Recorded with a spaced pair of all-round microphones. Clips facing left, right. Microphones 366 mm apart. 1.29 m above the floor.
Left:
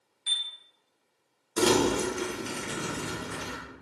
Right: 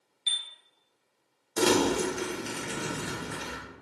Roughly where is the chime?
Centre.